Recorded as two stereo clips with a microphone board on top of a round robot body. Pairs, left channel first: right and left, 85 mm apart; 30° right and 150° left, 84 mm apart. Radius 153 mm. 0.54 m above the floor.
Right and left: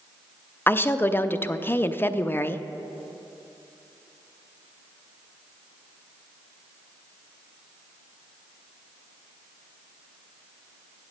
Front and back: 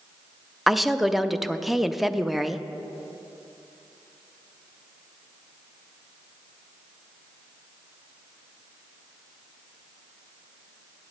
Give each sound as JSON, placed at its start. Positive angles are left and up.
{"t": 0.7, "sound": "a woman speaking", "azimuth_deg": -125, "distance_m": 0.6}